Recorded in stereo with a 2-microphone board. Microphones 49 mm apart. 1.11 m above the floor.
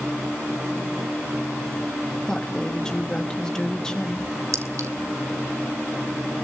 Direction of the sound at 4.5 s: 75° right (ahead or behind).